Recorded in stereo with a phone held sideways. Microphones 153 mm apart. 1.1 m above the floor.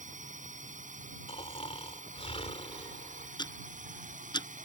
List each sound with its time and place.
0.0 s a drone: 55° right (ahead or behind)
1.3 s snoring: 40° left (ahead or behind)
3.4 s ticking: 30° left (ahead or behind)